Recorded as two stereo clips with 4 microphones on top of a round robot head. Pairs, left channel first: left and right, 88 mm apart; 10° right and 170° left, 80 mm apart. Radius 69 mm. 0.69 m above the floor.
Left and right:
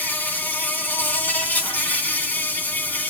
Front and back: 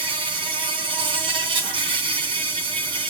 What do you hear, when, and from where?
0.0 s an insect: 160° left, 3 m